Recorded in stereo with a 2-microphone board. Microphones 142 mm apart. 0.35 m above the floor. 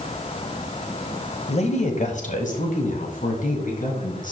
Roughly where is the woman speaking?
Left.